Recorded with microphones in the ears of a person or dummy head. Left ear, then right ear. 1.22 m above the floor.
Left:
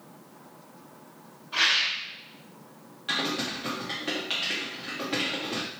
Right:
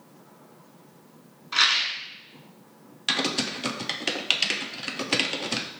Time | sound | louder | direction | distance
1.5 | a rattle | right 2 dB | 65° right (ahead or behind) | 1.6 m
3.1 | typing on a keyboard | right 3 dB | 70° right (ahead or behind) | 0.5 m